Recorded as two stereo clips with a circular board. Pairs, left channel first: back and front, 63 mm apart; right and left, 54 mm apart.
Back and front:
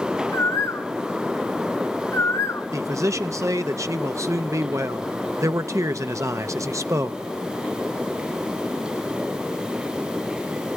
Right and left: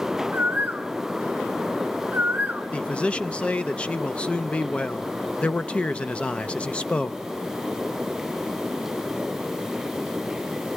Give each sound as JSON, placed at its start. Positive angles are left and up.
{"t": 0.3, "sound": "a bird", "azimuth_deg": 145, "distance_m": 0.6}
{"t": 2.7, "sound": "a man speaking", "azimuth_deg": -25, "distance_m": 0.6}